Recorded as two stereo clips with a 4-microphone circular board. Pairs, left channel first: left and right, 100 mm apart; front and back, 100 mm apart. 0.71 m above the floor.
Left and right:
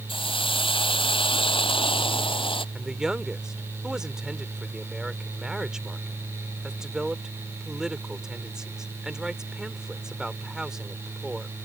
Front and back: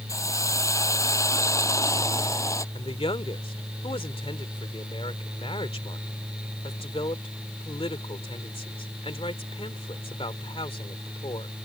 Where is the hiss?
60° left.